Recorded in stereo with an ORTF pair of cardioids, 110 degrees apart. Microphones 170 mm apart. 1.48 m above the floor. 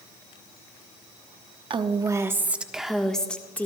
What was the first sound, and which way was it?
A woman speaking, 30° right.